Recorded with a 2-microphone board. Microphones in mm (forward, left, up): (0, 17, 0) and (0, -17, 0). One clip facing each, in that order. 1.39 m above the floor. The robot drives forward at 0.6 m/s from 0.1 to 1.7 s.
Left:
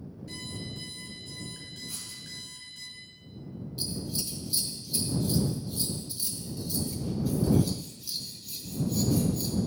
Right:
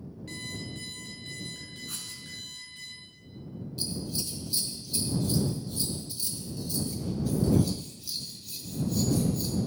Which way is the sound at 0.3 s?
65° right (ahead or behind).